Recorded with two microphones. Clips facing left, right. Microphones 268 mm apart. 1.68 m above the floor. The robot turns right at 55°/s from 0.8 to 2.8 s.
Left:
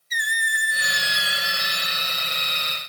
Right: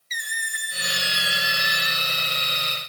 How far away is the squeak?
About 0.6 m.